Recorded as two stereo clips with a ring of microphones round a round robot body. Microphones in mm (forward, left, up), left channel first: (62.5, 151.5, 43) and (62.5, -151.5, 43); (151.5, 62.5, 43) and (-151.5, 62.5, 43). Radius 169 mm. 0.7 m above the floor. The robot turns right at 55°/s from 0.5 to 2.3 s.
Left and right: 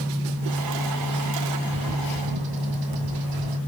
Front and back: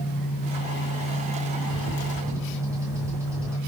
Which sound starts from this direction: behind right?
A bird, at 1.7 s.